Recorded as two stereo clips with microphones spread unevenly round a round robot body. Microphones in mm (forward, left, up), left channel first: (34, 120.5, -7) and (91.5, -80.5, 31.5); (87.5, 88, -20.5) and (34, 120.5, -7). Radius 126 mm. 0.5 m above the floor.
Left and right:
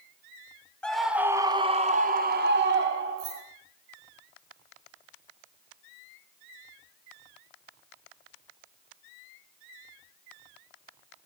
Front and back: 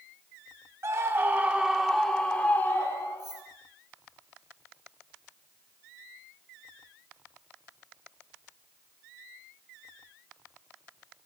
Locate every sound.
0.8 s a scream: 165° left, 0.9 m; by 3.4 s 65° right, 1.3 m
3.2 s keys jangling: 135° right, 4.5 m